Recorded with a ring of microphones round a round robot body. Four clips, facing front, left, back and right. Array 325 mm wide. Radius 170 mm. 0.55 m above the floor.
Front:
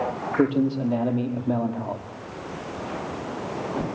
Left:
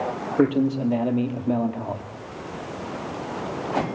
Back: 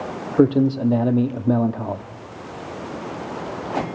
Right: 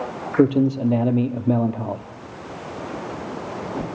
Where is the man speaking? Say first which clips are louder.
Right 3 dB, back 6 dB; 145° right, 1.4 m.